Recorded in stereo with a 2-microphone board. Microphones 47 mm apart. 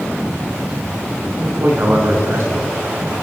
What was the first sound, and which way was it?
A man speaking, 65° right (ahead or behind).